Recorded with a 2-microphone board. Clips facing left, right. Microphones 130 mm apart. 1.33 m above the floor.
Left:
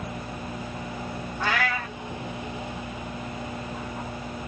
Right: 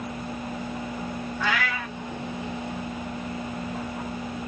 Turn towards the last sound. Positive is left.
turn(degrees=35)  # may be behind; listen again after turning